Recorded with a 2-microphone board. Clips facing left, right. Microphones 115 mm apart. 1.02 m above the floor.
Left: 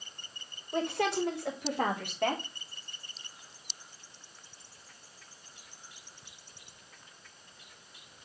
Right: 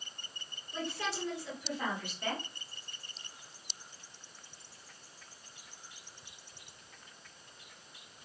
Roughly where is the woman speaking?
Left.